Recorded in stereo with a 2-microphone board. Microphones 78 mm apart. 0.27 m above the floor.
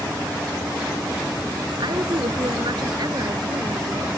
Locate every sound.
1.8 s a woman speaking: 65° right (ahead or behind); by 4.1 s 55° right (ahead or behind)